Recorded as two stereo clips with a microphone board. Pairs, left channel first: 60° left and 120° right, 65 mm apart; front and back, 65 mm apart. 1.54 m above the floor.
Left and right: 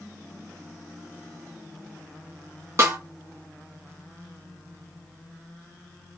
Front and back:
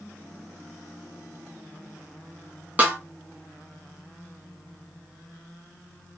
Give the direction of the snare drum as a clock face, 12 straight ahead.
4 o'clock.